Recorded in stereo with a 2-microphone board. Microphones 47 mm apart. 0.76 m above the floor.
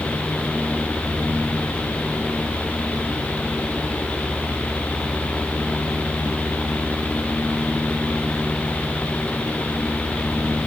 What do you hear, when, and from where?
Only background noise.